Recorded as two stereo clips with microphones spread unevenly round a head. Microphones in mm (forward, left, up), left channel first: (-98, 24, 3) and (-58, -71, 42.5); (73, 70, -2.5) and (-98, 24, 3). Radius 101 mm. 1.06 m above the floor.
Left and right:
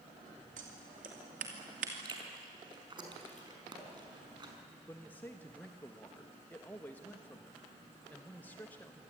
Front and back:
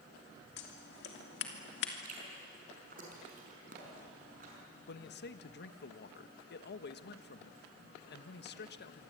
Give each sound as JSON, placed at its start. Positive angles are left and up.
{"t": 0.6, "sound": "scissors", "azimuth_deg": -25, "distance_m": 2.0}
{"t": 2.0, "sound": "chewing", "azimuth_deg": -110, "distance_m": 5.5}
{"t": 4.9, "sound": "a man speaking", "azimuth_deg": 40, "distance_m": 1.2}